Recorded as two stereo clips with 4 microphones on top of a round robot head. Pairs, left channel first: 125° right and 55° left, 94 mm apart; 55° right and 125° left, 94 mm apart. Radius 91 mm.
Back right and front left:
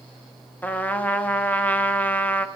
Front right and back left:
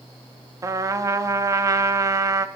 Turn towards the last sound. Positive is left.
turn(degrees=165)